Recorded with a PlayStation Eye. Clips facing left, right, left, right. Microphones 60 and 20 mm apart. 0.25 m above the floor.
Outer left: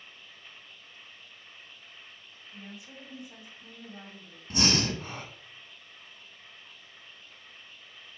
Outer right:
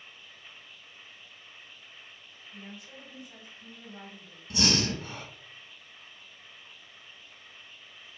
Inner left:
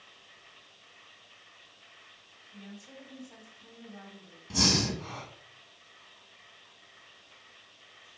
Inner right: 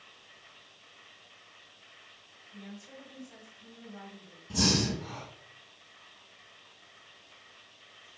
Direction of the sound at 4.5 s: 35° left (ahead or behind).